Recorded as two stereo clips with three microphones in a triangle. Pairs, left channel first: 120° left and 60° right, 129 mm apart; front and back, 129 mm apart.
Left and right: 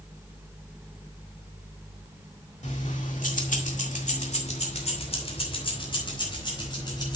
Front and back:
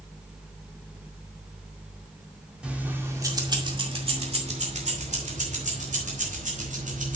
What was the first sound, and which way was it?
Keys jangling, 100° left.